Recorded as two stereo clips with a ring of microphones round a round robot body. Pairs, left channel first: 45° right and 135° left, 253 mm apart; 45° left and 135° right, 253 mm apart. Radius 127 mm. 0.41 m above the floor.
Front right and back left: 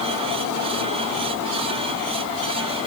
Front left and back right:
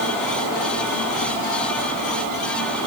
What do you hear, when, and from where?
Only background noise.